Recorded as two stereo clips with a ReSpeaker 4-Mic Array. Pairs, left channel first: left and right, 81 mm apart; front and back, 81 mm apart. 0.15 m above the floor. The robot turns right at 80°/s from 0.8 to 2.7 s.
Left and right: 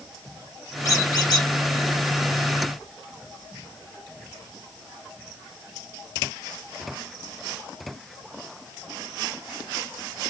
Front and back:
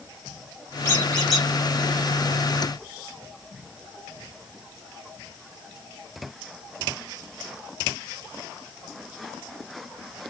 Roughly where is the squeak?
Ahead left.